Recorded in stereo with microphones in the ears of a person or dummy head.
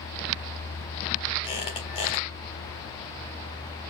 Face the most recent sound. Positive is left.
turn(degrees=25)  # may be behind; listen again after turning